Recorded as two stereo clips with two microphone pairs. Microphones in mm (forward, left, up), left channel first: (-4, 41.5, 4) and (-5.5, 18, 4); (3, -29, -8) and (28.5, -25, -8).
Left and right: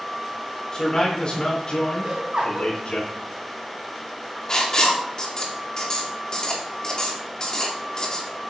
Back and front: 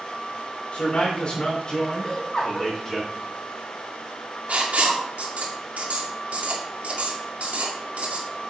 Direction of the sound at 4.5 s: 35° left.